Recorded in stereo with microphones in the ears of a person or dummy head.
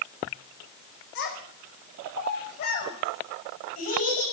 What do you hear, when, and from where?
1.1 s a child speaking: 70° left (ahead or behind), 5.5 m; by 4.2 s 40° left (ahead or behind), 7 m